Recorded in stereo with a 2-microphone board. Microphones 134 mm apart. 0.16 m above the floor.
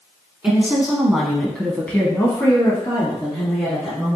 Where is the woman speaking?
10° right (ahead or behind), 1.3 m; by 4.2 s 30° left (ahead or behind), 2 m.